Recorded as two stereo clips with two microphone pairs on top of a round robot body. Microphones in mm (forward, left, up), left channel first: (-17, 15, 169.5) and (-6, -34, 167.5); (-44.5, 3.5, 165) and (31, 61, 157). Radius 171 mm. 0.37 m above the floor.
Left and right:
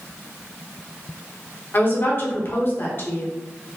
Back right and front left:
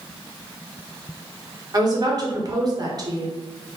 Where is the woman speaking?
70° left, 1.4 m.